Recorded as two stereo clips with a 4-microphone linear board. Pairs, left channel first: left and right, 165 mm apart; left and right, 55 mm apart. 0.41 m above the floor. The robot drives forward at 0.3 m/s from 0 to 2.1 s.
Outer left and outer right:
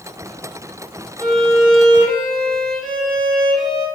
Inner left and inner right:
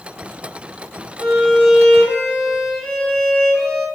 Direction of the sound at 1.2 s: 5° left (ahead or behind).